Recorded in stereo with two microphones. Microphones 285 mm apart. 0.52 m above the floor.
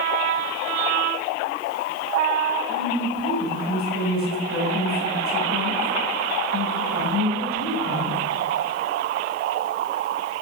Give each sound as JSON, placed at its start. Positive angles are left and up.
{"t": 2.7, "sound": "a woman speaking", "side_deg": -75, "distance_m": 3.5}